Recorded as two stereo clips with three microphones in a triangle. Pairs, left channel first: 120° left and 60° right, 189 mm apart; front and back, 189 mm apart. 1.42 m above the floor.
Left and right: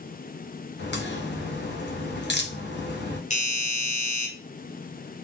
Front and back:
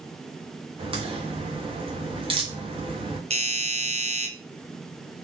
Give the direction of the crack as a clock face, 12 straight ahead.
8 o'clock.